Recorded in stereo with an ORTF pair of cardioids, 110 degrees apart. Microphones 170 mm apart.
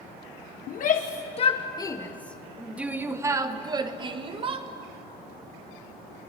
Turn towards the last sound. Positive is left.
turn(degrees=-35)